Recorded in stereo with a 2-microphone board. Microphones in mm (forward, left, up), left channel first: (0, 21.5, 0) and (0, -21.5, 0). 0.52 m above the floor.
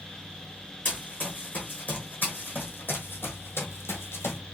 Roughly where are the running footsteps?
Left.